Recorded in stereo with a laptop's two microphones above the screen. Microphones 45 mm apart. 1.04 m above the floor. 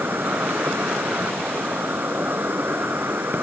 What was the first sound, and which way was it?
An insect, 50° right (ahead or behind).